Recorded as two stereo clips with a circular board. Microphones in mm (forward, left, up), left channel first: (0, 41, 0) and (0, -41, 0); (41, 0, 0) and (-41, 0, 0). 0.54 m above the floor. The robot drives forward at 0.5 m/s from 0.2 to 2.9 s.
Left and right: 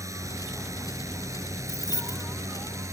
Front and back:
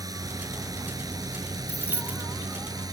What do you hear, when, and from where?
0.0 s a drone: 140° right
1.7 s keys jangling: 105° left; by 2.2 s 115° left